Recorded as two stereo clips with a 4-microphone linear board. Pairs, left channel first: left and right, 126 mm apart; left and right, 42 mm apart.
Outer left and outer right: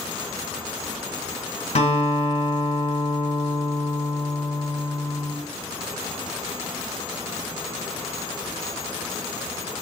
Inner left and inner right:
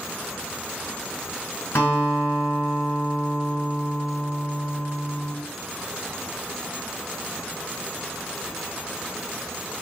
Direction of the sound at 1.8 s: 60° left (ahead or behind).